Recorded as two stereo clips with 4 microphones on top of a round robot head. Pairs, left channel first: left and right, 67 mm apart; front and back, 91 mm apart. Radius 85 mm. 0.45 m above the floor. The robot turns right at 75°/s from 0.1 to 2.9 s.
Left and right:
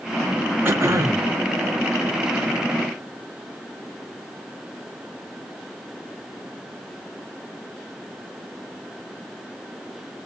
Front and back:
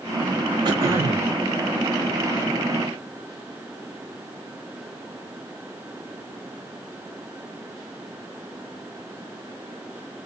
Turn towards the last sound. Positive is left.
turn(degrees=25)